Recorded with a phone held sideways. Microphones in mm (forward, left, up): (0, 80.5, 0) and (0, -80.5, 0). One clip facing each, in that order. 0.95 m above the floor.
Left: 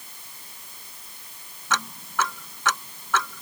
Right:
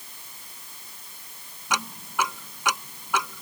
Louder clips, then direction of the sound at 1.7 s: Left 1 dB; 10° right (ahead or behind).